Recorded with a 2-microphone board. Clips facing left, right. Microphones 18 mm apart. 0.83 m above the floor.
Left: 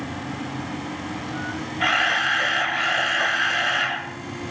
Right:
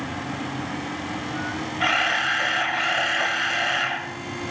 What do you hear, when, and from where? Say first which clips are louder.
1.8 s a camera shutter: left 1 dB; centre (ahead or behind), 3.5 m